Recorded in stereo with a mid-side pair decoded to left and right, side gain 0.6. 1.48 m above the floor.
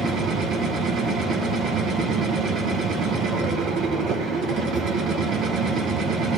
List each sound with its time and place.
0.0 s a machine running: 50° right, 1.3 m